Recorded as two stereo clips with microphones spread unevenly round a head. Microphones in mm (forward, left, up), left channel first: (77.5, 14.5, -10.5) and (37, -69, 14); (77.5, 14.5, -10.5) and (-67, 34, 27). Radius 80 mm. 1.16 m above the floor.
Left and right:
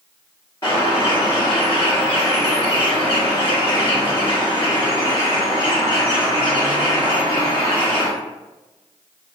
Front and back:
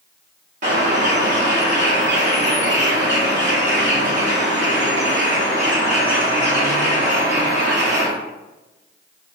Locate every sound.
0.6 s a bird: 140° left, 1.6 m